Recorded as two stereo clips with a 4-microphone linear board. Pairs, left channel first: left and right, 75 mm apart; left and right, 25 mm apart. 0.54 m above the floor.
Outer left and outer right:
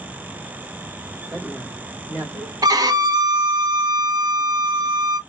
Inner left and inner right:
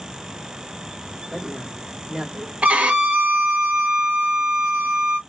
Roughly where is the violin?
Right.